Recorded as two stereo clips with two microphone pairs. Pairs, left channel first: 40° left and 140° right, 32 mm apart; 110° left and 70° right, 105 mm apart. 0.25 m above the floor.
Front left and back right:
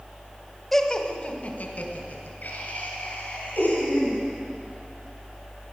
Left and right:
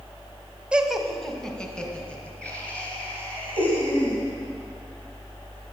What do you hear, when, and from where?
0.7 s laughter: 20° right, 0.9 m; by 4.2 s 30° left, 5.5 m